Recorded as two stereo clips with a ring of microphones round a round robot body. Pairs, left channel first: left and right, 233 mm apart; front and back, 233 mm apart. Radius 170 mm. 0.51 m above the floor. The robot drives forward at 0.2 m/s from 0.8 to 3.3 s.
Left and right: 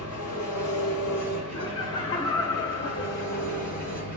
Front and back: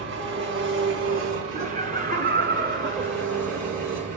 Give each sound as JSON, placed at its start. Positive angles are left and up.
{"t": 0.0, "sound": "an engine running", "azimuth_deg": 145, "distance_m": 3.5}
{"t": 1.6, "sound": "laughter", "azimuth_deg": 145, "distance_m": 0.7}